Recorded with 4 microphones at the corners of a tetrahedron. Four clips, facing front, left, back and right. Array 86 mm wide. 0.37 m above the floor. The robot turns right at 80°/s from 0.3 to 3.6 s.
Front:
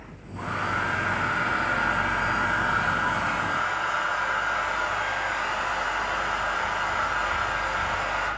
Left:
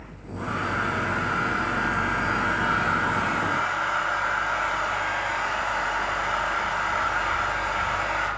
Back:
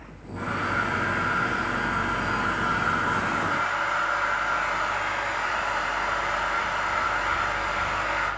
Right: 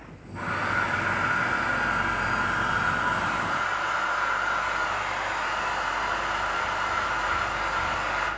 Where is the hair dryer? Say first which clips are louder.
Right 1 dB, back 1 dB; 105° right, 4 m; by 8.3 s 155° left, 4 m.